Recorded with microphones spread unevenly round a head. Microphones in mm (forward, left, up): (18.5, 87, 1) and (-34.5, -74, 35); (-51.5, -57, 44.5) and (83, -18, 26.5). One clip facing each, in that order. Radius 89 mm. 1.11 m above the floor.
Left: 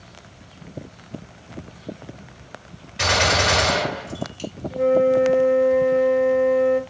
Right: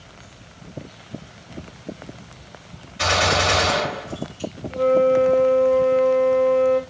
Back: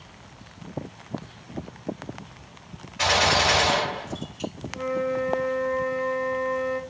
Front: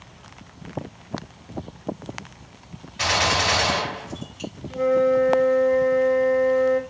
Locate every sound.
3.0 s a gunshot: 80° left, 6.5 m
4.7 s a flute: 10° right, 1.6 m